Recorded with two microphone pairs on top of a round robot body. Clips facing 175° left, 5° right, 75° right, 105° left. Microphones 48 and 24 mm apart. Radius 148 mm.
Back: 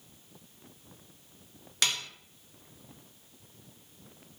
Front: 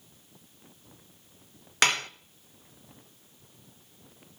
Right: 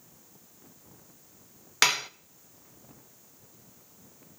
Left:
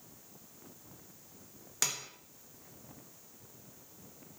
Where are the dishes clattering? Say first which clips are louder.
Front 7 dB, right 12 dB; 45° right, 0.5 m.